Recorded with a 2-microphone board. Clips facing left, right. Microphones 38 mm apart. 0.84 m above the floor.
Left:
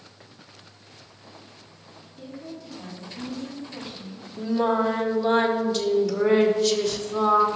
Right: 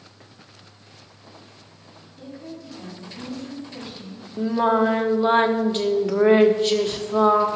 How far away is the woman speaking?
About 5 m.